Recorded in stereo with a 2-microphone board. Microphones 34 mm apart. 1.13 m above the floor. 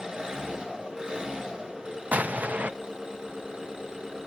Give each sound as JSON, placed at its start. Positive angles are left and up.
{"t": 0.0, "sound": "an engine running", "side_deg": -25, "distance_m": 5.0}
{"t": 2.1, "sound": "an explosion", "side_deg": -45, "distance_m": 0.6}